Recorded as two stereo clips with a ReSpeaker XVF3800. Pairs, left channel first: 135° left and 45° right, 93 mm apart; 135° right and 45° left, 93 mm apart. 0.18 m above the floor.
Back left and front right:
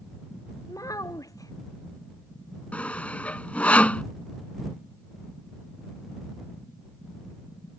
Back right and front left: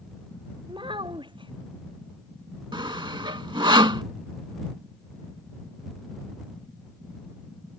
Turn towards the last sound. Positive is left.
turn(degrees=60)